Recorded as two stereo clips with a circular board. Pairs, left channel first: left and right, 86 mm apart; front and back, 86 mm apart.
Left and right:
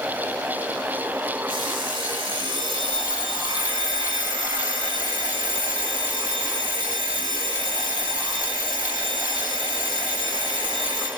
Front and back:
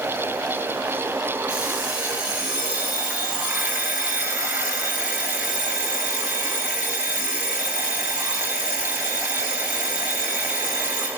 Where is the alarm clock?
105° right, 3.5 m.